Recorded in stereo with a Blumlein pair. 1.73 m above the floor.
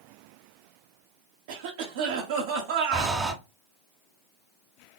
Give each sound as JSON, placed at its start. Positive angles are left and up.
{"t": 1.5, "sound": "a cough", "azimuth_deg": -55, "distance_m": 1.1}
{"t": 2.9, "sound": "breathing", "azimuth_deg": -10, "distance_m": 0.9}